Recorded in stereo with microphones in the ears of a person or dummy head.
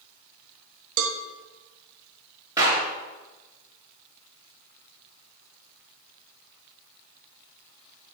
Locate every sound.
1.0 s a cowbell: 85° right, 1.2 m
2.6 s a clap: 25° right (ahead or behind), 3 m